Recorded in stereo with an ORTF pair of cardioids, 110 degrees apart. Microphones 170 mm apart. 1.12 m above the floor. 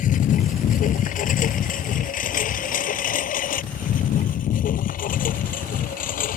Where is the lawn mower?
55° left.